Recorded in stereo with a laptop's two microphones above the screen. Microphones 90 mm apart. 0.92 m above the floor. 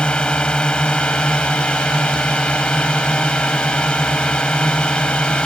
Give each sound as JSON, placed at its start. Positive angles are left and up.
{"t": 0.0, "sound": "a drone", "side_deg": 10}